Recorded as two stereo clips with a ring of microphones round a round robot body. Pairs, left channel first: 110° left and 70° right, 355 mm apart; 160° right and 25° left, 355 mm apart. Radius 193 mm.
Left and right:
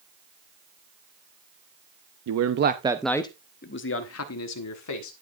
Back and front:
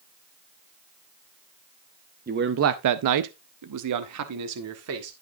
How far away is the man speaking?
About 0.7 m.